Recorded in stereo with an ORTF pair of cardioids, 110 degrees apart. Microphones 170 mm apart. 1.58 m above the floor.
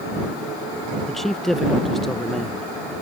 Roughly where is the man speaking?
Ahead.